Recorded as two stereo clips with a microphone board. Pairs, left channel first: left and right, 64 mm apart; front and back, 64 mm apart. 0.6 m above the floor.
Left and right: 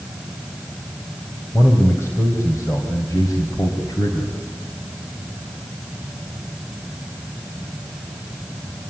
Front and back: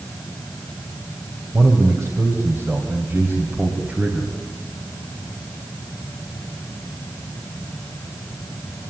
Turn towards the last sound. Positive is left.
turn(degrees=110)